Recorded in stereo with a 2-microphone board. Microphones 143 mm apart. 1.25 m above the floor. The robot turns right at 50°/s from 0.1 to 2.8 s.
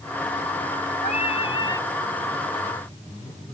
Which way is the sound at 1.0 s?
115° left.